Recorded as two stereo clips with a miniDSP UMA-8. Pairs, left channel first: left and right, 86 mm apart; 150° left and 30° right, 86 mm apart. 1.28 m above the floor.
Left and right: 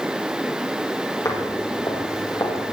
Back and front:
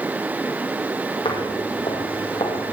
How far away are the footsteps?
About 3.5 m.